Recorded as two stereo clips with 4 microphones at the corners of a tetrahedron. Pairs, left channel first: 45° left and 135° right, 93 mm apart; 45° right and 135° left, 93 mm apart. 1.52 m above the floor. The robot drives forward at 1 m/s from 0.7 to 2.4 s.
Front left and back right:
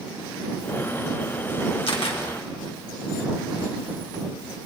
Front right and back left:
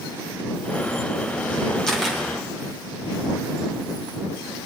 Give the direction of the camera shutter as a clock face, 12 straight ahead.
11 o'clock.